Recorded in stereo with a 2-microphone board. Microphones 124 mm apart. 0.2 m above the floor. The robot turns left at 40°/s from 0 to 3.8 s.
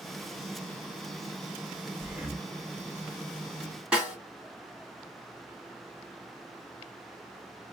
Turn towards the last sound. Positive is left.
turn(degrees=-10)  # may be behind; listen again after turning